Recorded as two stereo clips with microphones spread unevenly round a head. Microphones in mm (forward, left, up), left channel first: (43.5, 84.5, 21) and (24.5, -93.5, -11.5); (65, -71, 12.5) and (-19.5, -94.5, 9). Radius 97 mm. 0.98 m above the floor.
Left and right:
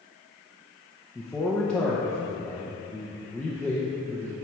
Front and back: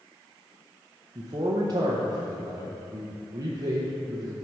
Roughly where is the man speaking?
Behind.